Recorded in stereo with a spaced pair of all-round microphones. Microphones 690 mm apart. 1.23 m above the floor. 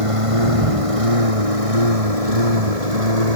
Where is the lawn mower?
45° right (ahead or behind); by 3.4 s 60° right (ahead or behind).